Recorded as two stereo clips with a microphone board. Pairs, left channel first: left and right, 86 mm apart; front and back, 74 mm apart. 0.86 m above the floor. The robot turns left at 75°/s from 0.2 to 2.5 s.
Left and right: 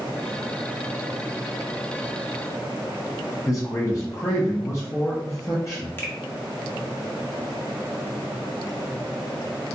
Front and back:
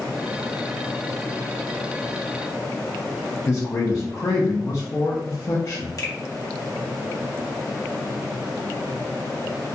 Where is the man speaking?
40° left, 0.6 m.